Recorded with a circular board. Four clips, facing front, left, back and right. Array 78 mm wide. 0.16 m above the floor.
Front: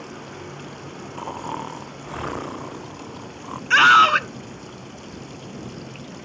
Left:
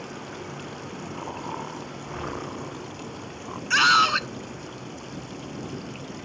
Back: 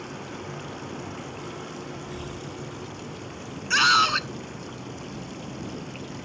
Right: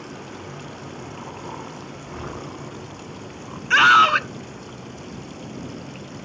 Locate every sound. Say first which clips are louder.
1.2 s snoring: left 3 dB, front 7 dB; 10° left
3.7 s a scream: right 6 dB, front 8 dB; 35° right